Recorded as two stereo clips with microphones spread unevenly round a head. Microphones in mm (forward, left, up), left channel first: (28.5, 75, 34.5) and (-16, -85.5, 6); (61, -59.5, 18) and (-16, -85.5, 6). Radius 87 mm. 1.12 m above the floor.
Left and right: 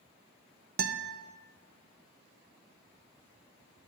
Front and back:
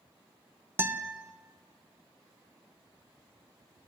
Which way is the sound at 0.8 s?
105° right.